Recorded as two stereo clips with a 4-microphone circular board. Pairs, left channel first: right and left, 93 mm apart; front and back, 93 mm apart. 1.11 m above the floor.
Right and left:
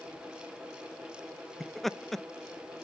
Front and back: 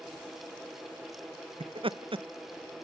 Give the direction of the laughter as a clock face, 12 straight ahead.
6 o'clock.